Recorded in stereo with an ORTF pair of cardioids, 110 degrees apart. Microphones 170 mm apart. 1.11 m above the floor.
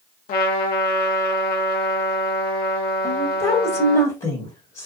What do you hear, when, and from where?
0.3 s a trumpet: 65° left, 0.9 m
3.0 s a woman speaking: 30° left, 1.4 m